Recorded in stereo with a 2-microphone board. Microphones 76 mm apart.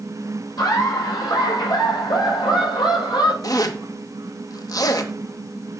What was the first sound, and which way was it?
Laughter, 60° left (ahead or behind).